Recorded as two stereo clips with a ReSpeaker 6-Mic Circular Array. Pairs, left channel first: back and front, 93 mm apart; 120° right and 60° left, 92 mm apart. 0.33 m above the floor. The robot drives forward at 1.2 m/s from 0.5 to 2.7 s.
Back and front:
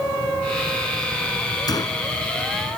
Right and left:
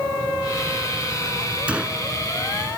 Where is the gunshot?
135° left; by 2.0 s 140° left.